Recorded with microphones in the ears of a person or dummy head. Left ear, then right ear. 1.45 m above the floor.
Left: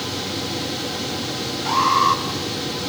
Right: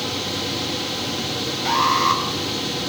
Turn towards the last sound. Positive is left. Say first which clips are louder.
# left 1 dB
turn(degrees=-15)  # may be behind; listen again after turning